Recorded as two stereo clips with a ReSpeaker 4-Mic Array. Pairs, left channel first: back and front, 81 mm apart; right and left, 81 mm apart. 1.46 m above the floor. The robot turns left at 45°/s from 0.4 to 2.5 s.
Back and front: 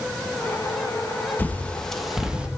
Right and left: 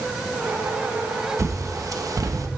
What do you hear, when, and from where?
1.4 s a bird: 120° left, 0.7 m; by 2.5 s 70° left, 0.7 m